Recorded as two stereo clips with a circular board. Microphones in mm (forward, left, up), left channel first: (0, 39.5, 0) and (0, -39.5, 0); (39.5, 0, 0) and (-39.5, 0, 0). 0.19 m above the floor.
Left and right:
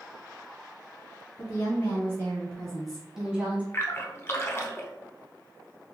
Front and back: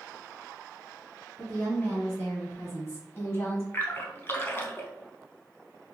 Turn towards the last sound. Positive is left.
turn(degrees=50)